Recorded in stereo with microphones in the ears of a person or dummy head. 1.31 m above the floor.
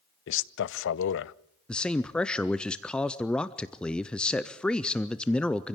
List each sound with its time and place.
0.3 s a man speaking: 60° left (ahead or behind), 0.6 m
1.7 s a man speaking: 5° left (ahead or behind), 0.5 m